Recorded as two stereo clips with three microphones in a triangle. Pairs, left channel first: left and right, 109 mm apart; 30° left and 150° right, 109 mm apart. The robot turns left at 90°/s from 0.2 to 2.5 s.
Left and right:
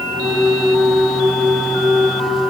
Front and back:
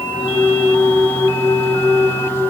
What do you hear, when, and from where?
Only background noise.